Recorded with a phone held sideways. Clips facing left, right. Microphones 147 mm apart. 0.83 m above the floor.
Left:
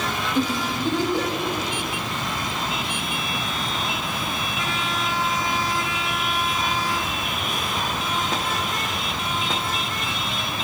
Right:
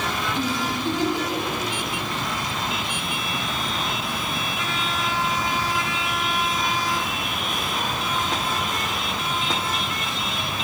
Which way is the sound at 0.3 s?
55° left (ahead or behind).